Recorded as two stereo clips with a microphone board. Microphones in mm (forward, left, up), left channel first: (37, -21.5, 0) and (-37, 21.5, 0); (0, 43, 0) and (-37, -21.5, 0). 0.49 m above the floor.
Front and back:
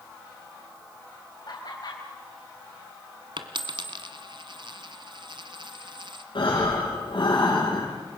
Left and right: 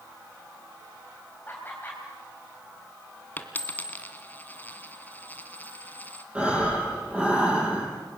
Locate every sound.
1.5 s laughter: straight ahead, 3 m
3.4 s a dropped coin: 125° left, 1.6 m
6.3 s breathing: 45° right, 7.5 m